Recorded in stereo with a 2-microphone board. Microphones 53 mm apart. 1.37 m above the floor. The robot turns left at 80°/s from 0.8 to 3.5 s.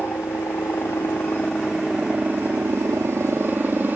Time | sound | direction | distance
0.0 | a helicopter | 80° left | ?